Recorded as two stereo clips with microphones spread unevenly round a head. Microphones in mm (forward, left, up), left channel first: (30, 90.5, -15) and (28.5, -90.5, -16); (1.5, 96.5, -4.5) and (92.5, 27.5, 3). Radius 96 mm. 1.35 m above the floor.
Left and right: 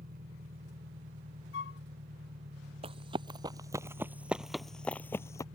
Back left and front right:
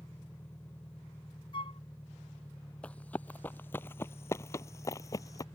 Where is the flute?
100° left.